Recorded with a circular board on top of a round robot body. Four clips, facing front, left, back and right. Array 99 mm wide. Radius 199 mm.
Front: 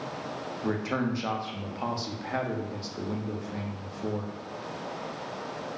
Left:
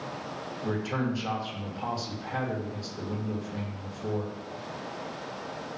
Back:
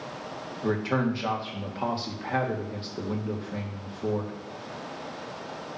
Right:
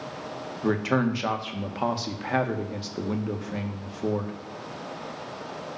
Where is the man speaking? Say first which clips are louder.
Right 6 dB, back 3 dB; 100° right, 1.8 m.